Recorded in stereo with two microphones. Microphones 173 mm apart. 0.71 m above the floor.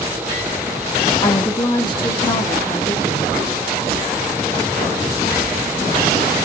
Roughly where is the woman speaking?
Centre.